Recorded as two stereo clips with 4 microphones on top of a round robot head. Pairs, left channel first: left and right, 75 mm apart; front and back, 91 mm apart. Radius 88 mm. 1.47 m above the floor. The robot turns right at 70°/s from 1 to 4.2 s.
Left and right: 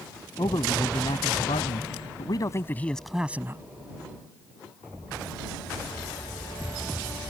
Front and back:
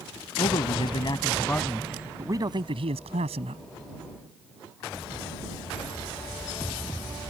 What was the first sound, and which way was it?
A man speaking, 35° left.